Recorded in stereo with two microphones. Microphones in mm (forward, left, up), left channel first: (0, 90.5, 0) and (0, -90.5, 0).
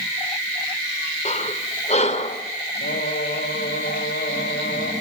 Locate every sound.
1.2 s breathing: 40° left (ahead or behind), 2.5 m
2.8 s singing: 85° left, 7 m